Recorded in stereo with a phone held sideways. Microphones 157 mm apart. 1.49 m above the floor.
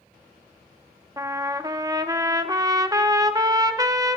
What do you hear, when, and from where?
1.2 s a trumpet: 25° right (ahead or behind), 0.7 m